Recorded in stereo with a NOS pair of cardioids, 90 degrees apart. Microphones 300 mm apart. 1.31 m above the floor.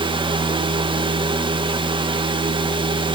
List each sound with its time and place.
0.0 s a fan: 15° right, 1.1 m